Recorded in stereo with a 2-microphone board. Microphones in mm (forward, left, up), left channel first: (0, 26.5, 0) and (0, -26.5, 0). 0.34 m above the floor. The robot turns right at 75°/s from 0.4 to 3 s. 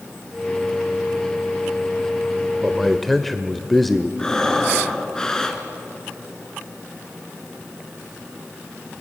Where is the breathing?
10° left (ahead or behind), 2.0 m.